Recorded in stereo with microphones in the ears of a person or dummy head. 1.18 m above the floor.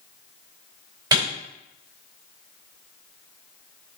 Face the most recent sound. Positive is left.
turn(degrees=-20)  # may be behind; listen again after turning